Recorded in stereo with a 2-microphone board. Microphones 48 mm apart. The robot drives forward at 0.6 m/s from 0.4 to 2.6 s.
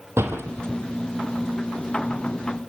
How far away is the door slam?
About 3 m.